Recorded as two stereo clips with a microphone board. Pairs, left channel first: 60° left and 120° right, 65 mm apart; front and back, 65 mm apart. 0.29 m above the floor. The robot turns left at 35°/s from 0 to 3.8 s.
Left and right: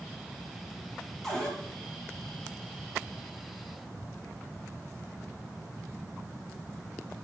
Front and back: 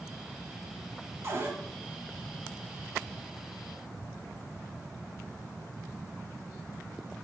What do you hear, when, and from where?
1.2 s a cupboard door: 145° left, 0.5 m; by 1.6 s 130° left, 0.5 m